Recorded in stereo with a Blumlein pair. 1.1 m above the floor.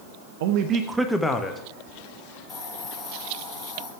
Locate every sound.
0.4 s a man speaking: 55° right, 0.8 m; by 1.6 s 15° left, 1.4 m
2.5 s a hiss: 20° left, 3 m